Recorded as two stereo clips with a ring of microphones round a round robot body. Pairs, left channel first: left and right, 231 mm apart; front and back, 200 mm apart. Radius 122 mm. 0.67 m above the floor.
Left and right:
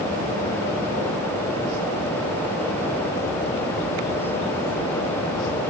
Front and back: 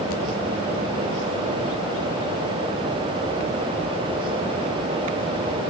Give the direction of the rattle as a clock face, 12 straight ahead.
I don't hear a rattle.